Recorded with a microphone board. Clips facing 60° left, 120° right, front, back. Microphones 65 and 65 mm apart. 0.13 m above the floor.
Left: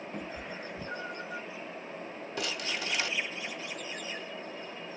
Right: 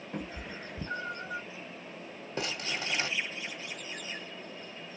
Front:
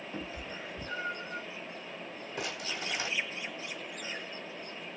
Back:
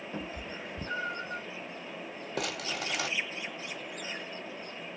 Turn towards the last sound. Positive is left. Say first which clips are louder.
# even, back 3 dB
turn(degrees=-175)